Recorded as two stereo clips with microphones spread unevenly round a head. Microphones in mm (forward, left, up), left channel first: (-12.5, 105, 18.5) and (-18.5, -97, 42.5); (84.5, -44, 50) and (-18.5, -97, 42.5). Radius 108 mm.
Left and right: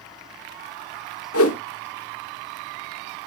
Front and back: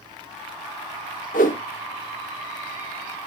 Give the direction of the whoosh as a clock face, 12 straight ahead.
10 o'clock.